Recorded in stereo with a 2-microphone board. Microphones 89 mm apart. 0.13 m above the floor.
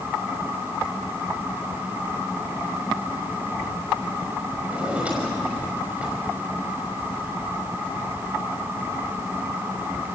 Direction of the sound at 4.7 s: 10° right (ahead or behind).